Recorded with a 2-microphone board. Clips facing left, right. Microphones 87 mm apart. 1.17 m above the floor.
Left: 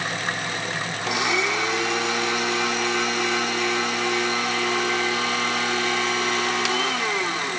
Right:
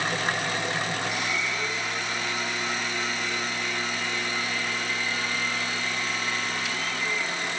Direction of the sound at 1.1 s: 65° left (ahead or behind).